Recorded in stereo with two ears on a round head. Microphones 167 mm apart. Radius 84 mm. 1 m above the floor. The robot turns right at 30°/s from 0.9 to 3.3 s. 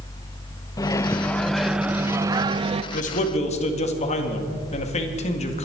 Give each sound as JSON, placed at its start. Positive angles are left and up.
{"t": 0.8, "sound": "a microwave", "azimuth_deg": 160, "distance_m": 0.5}
{"t": 2.9, "sound": "a man speaking", "side_deg": 45, "distance_m": 2.0}